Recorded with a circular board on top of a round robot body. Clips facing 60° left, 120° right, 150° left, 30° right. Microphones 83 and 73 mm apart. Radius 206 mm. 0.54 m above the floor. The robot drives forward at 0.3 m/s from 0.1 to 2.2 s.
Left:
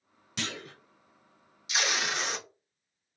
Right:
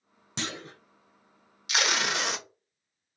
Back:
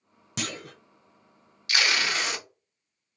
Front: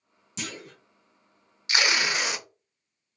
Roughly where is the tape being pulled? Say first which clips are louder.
Right 3 dB, front 1 dB; right.